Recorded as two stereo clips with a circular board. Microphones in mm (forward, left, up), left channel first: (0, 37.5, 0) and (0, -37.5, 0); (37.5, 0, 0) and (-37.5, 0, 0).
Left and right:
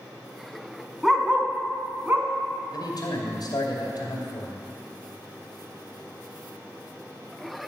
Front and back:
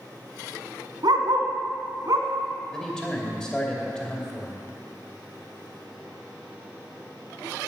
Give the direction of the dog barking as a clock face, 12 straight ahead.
6 o'clock.